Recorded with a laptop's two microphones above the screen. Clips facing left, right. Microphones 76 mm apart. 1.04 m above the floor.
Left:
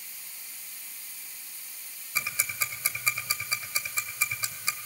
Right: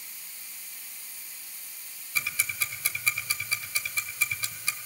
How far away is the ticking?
About 1.8 m.